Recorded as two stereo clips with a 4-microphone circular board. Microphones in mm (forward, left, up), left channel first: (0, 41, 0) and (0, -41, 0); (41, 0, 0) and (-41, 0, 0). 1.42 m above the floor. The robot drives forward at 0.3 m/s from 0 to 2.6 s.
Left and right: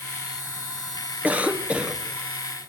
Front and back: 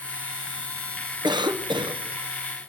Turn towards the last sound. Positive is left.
turn(degrees=-165)